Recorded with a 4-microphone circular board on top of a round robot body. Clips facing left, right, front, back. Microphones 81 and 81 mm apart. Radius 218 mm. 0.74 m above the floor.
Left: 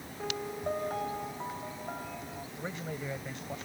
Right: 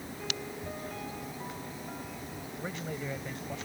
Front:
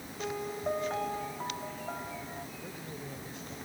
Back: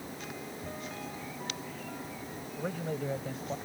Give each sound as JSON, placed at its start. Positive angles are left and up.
{"t": 0.2, "sound": "a piano", "azimuth_deg": 45}
{"t": 2.6, "sound": "a man speaking", "azimuth_deg": 170}